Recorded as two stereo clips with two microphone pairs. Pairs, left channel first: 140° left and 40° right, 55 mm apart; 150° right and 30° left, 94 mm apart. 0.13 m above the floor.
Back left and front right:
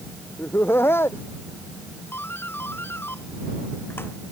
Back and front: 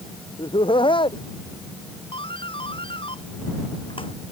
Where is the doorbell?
175° right.